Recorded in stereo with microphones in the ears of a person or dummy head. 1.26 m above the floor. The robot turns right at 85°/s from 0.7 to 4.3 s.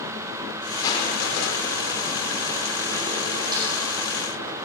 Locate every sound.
0.8 s crushing: 25° left, 4 m; by 4.0 s 65° right, 4 m
3.5 s a snare drum: 25° right (ahead or behind), 7 m; by 3.7 s 40° right (ahead or behind), 7 m